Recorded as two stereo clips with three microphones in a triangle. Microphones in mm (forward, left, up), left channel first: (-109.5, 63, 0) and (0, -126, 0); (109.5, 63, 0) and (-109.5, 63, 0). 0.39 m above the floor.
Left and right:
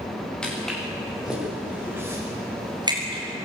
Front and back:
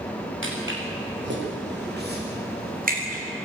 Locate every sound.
0.4 s footsteps: 155° right, 9 m; by 3.2 s 125° right, 7.5 m